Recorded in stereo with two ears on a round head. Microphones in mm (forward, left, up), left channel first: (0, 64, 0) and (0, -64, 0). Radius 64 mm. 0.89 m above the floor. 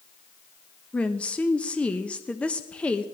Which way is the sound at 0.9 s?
10° left (ahead or behind).